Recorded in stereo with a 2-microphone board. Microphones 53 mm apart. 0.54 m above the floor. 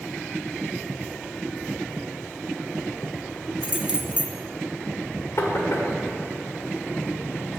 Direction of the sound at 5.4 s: 65° left (ahead or behind).